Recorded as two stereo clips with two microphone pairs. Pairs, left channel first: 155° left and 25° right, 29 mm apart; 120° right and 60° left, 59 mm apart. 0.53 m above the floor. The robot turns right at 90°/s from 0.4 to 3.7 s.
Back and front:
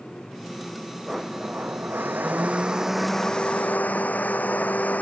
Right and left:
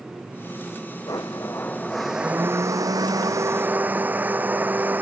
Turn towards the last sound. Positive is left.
turn(degrees=125)